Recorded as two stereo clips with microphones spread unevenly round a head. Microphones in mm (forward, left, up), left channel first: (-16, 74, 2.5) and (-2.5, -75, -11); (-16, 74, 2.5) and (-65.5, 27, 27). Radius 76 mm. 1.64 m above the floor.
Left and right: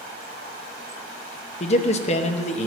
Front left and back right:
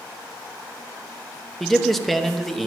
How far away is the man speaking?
About 0.8 m.